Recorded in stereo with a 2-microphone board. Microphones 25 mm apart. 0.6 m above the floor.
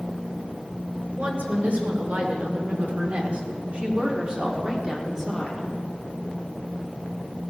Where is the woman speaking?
65° right (ahead or behind), 3 m; by 5.7 s 5° right (ahead or behind), 1.9 m.